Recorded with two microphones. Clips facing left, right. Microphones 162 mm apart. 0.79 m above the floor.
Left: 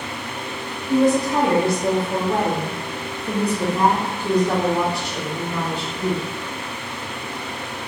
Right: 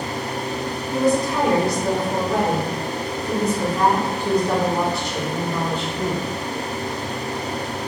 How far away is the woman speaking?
About 1.8 m.